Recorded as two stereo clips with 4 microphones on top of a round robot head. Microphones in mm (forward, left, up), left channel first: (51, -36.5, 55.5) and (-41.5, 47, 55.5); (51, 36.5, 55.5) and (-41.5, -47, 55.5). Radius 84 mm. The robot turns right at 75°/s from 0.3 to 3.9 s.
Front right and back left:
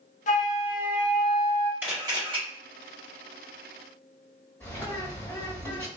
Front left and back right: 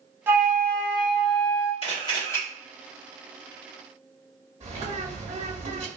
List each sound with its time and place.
0.3 s a flute: 65° right, 0.6 m; by 1.7 s 40° left, 0.6 m
1.8 s a camera shutter: 70° left, 1.8 m; by 2.4 s 110° left, 1.8 m
4.6 s a bird: 115° right, 1.9 m